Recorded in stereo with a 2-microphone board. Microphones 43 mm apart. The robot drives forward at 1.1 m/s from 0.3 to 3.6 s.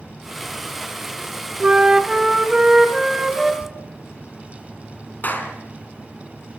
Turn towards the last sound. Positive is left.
turn(degrees=40)  # may be behind; listen again after turning